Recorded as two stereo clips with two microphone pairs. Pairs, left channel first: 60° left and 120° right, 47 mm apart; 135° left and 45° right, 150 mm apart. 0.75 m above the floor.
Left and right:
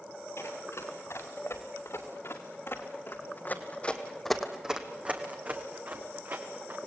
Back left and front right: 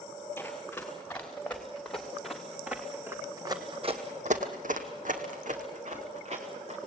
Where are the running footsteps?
60° left, 5.5 m; by 6.8 s 85° right, 4 m.